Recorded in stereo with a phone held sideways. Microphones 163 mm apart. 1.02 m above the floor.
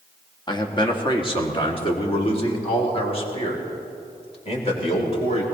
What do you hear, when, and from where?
0.5 s a man speaking: 25° left (ahead or behind), 1.8 m; by 5.4 s 40° left (ahead or behind), 5 m